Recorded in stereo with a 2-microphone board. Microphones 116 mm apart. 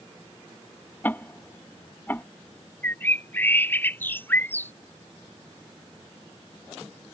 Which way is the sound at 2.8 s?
15° left (ahead or behind).